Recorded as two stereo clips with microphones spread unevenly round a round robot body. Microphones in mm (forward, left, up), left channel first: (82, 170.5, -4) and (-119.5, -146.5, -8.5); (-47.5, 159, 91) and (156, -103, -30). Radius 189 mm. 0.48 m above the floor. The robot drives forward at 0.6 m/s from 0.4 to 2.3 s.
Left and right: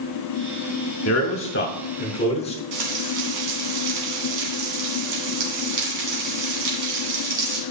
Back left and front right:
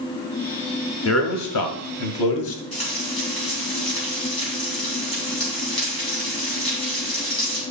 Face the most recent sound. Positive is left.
turn(degrees=-155)